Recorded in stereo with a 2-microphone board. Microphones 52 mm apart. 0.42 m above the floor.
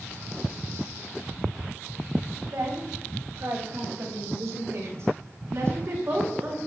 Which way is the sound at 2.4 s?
80° right.